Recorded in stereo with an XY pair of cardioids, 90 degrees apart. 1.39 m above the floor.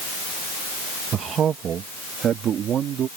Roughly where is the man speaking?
Ahead right.